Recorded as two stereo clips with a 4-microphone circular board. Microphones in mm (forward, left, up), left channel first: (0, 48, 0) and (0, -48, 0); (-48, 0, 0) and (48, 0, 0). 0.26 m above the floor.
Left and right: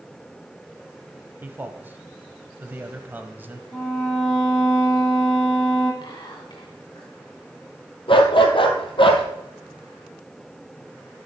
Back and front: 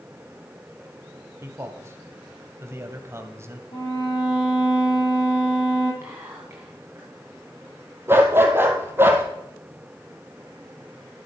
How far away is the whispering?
About 2.5 m.